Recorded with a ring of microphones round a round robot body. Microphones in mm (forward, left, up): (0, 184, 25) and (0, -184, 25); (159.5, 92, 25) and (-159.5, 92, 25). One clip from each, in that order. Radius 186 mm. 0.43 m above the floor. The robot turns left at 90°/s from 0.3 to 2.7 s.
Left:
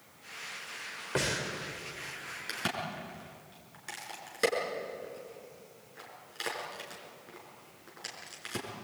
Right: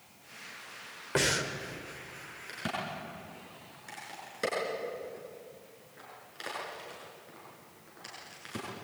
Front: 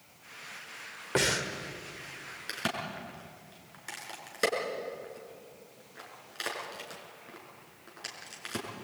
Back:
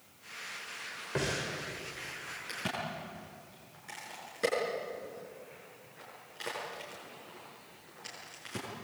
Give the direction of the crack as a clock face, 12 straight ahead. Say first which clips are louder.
Left 1 dB, front 3 dB; 11 o'clock.